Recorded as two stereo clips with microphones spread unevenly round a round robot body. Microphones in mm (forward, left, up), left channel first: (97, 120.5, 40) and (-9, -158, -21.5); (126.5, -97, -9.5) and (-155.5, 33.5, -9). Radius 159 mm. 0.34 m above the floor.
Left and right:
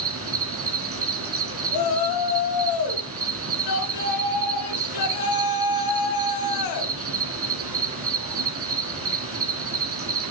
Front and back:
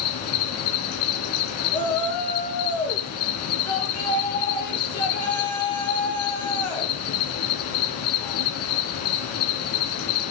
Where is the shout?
45° left, 2.5 m.